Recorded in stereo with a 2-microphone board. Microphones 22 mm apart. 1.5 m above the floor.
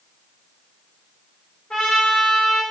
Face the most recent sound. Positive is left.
turn(degrees=45)  # may be behind; listen again after turning